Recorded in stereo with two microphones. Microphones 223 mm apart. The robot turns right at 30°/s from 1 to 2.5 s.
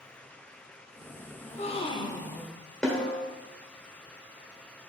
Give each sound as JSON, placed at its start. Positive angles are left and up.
{"t": 1.4, "sound": "a gasp", "azimuth_deg": 140, "distance_m": 0.6}
{"t": 2.8, "sound": "a snare drum", "side_deg": 5, "distance_m": 1.5}